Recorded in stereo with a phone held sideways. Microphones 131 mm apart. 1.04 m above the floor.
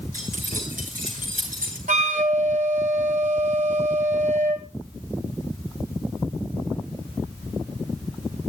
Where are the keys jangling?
80° right, 9 m; by 1.8 s 85° right, 8.5 m.